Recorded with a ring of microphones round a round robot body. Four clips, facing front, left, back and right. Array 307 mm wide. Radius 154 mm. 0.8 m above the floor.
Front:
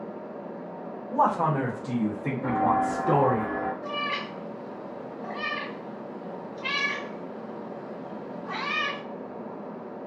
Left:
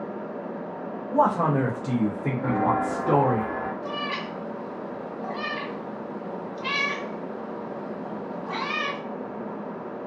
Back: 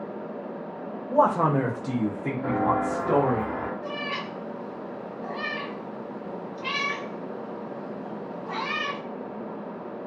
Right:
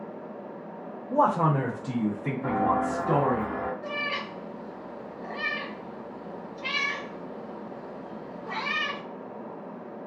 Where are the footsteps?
105° left, 0.9 m; by 3.7 s 175° right, 1.3 m.